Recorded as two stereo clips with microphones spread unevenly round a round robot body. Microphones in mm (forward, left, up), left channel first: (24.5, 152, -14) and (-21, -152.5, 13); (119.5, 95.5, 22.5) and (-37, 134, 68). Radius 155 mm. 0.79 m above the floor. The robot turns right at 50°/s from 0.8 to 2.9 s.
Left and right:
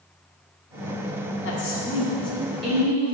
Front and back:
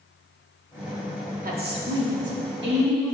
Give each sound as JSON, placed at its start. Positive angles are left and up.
{"t": 1.4, "sound": "a woman speaking", "azimuth_deg": 125, "distance_m": 2.5}